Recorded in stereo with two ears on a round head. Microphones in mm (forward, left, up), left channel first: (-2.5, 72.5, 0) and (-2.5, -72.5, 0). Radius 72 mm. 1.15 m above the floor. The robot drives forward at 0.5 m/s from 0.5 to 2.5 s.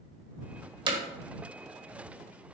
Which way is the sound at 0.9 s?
30° right (ahead or behind).